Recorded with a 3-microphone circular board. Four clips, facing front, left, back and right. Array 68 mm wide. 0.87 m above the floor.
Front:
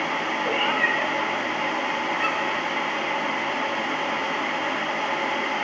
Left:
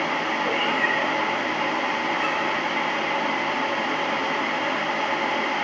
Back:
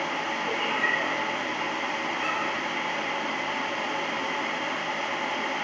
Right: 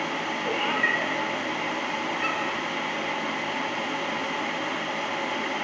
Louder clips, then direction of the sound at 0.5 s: Even, front 4 dB; 30° left.